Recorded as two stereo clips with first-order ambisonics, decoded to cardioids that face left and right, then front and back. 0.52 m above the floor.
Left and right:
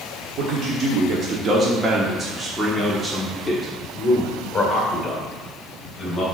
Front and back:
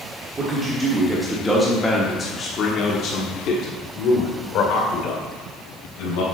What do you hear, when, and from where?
0.4 s a man speaking: 120° right, 1.2 m; by 6.2 s 20° left, 2.5 m